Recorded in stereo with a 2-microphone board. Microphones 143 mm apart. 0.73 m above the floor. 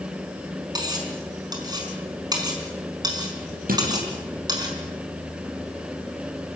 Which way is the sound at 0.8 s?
30° right (ahead or behind).